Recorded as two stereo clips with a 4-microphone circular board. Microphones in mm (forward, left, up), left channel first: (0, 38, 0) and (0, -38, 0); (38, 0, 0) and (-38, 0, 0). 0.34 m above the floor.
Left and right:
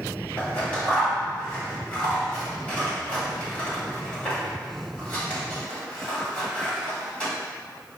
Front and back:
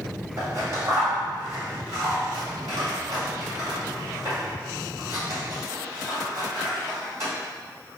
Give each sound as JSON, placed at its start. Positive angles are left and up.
{"t": 0.4, "sound": "scissors", "azimuth_deg": 155, "distance_m": 1.7}